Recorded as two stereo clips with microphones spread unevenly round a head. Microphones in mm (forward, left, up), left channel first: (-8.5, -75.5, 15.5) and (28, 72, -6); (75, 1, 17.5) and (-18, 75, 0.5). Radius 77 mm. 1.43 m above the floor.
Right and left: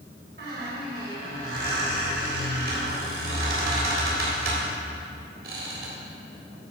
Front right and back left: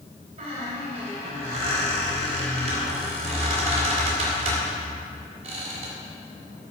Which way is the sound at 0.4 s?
105° left.